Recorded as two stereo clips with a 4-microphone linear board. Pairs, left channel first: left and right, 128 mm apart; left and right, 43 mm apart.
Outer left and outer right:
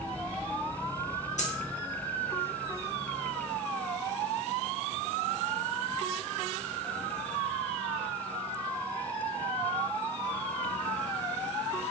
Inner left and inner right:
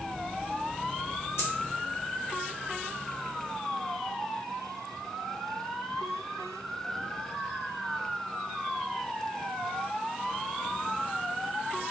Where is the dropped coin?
70° left (ahead or behind), 0.8 m.